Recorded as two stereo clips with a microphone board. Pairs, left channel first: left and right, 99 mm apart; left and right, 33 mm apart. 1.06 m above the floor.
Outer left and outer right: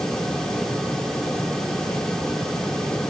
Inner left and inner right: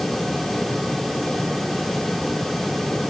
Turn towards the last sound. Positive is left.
No sound to turn to.